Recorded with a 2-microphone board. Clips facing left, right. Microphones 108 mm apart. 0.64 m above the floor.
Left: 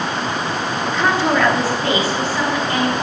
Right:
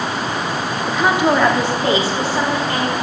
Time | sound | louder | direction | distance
0.9 | a woman speaking | right 2 dB | 5° right (ahead or behind) | 0.6 m